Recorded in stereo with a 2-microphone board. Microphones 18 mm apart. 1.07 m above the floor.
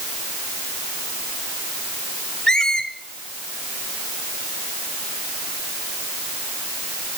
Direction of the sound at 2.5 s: 35° left (ahead or behind).